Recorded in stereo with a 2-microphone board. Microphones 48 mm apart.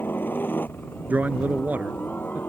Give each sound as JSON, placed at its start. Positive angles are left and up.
{"t": 0.0, "sound": "a helicopter", "side_deg": 45}
{"t": 1.1, "sound": "a man speaking", "side_deg": -35}